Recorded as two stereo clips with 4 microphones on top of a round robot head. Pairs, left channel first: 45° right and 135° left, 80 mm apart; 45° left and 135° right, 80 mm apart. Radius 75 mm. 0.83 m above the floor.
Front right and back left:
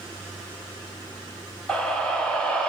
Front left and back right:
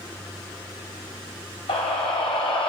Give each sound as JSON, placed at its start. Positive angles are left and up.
{"t": 1.7, "sound": "a scream", "azimuth_deg": 35, "distance_m": 6.0}